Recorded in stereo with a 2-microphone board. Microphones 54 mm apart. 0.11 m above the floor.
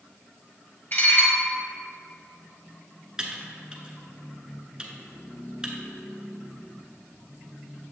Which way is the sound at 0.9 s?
40° left (ahead or behind).